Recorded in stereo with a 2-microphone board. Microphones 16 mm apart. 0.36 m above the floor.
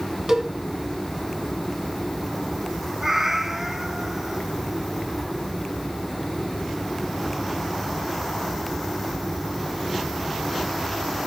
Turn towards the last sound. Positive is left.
turn(degrees=-15)  # may be behind; listen again after turning